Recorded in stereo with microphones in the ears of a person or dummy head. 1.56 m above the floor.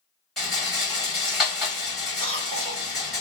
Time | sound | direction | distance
0.4 | a rattle | 5° left (ahead or behind) | 1.4 m
2.2 | a cough | 45° right (ahead or behind) | 1.4 m